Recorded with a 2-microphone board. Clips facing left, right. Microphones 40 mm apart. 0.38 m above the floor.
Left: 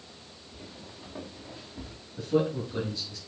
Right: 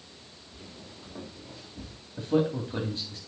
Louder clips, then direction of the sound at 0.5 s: Left 1 dB; centre (ahead or behind).